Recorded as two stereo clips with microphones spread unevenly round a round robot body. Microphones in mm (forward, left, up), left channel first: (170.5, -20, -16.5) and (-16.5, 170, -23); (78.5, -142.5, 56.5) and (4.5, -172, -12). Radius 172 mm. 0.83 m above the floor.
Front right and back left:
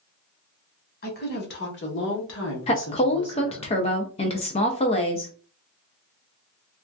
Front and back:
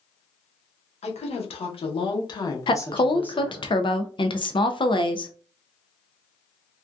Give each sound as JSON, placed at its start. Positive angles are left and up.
{"t": 1.0, "sound": "a woman speaking", "azimuth_deg": 0, "distance_m": 1.4}
{"t": 2.7, "sound": "a woman speaking", "azimuth_deg": -50, "distance_m": 0.5}